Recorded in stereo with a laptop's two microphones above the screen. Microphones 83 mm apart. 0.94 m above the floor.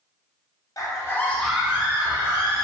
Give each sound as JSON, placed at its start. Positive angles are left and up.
{"t": 0.8, "sound": "a scream", "side_deg": 45, "distance_m": 0.8}